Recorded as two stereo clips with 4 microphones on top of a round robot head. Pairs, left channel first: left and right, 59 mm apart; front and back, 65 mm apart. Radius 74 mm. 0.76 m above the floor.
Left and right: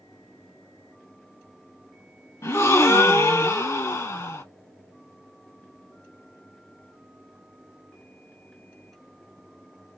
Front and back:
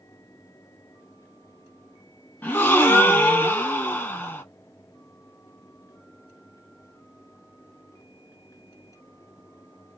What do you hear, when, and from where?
2.4 s a gasp: 60° left, 1.4 m